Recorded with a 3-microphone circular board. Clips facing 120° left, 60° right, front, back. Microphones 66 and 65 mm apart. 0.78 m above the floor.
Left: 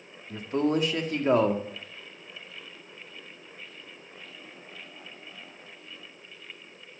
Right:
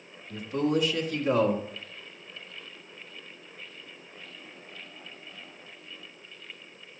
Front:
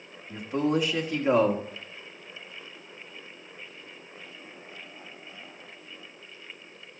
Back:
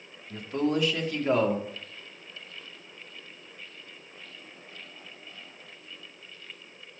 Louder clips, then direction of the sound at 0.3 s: Left 1 dB, front 1 dB; 70° left.